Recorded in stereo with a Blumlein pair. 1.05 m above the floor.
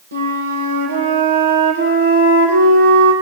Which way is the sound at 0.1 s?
65° right.